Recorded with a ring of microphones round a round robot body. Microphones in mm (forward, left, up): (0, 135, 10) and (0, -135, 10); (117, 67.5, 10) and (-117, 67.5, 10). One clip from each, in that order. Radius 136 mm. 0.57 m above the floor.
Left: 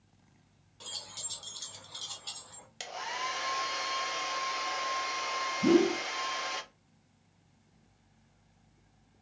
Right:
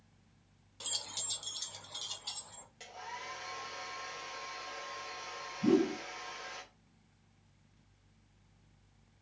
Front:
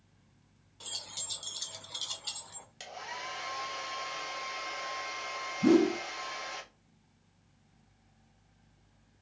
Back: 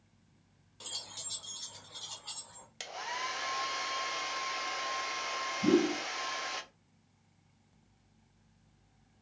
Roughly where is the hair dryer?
Behind left.